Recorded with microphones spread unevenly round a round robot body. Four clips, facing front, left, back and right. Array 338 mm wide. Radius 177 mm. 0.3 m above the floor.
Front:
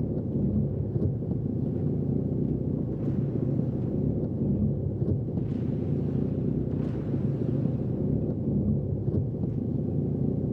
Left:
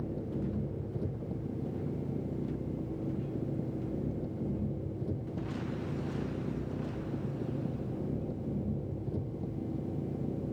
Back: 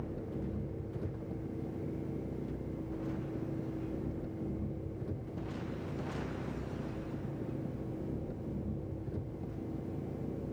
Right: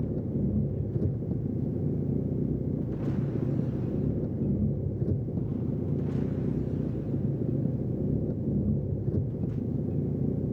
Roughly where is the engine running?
Ahead right.